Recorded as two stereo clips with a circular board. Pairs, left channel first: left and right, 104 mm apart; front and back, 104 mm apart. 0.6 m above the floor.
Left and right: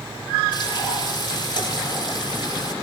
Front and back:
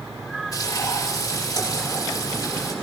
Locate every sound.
0.5 s frying: 55° left, 6 m